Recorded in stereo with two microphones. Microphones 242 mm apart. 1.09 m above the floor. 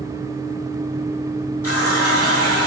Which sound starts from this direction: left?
A running tap, at 1.6 s.